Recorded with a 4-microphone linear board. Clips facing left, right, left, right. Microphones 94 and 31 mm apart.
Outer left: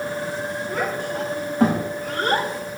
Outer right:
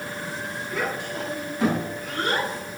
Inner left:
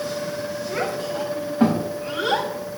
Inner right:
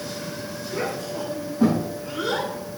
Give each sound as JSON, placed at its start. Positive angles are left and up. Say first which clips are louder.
{"t": 0.7, "sound": "a child speaking", "louder": "outer left 2 dB, inner left 1 dB", "side_deg": 50, "distance_m": 4.5}